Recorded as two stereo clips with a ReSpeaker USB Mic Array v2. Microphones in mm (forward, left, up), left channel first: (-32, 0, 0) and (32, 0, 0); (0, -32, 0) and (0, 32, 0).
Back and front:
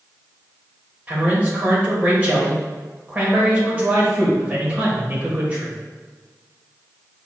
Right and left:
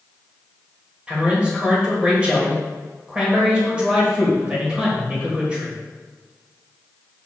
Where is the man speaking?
35° left, 1.6 m.